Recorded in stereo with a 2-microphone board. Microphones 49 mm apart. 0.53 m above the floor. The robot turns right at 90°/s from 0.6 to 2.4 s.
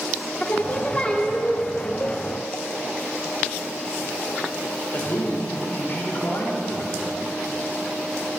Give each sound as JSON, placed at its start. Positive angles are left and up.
{"t": 0.4, "sound": "singing", "azimuth_deg": 100, "distance_m": 0.8}
{"t": 2.0, "sound": "a cowbell", "side_deg": 40, "distance_m": 0.9}
{"t": 4.9, "sound": "a man speaking", "side_deg": 50, "distance_m": 2.0}